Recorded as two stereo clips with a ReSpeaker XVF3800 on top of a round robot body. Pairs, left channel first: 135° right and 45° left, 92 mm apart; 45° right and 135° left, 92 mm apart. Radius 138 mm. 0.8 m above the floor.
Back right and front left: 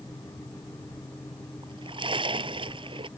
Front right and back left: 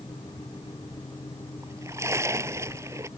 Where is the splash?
75° left.